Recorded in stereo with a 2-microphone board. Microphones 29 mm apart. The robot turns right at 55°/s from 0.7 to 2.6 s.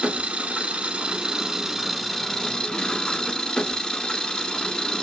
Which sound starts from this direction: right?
An engine running, at 0.0 s.